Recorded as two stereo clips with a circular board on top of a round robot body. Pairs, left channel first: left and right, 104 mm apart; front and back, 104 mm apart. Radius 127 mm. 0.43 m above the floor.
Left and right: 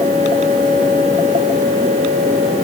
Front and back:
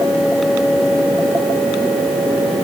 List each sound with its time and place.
Only background noise.